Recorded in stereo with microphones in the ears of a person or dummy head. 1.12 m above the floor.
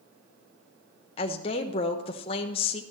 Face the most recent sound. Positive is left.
turn(degrees=30)  # may be behind; listen again after turning